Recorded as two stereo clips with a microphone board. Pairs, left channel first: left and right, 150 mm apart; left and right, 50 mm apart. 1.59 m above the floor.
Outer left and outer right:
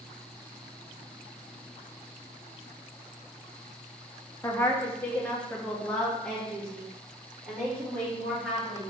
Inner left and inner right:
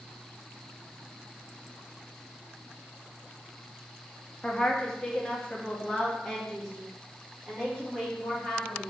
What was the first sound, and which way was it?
A woman speaking, 20° left (ahead or behind).